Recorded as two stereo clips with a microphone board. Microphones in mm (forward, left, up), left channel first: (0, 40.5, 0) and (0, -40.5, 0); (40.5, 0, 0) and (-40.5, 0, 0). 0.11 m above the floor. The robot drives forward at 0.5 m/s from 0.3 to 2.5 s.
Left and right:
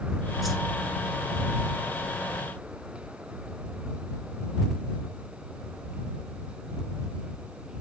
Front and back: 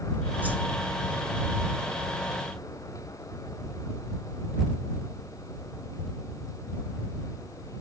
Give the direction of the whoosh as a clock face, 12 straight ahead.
6 o'clock.